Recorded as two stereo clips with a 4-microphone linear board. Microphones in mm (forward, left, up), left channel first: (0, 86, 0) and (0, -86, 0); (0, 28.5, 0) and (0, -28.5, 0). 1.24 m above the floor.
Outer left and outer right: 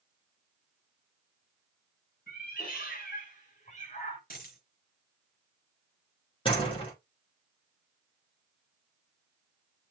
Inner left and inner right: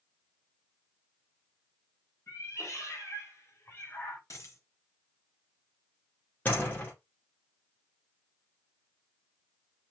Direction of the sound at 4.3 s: 55° left (ahead or behind).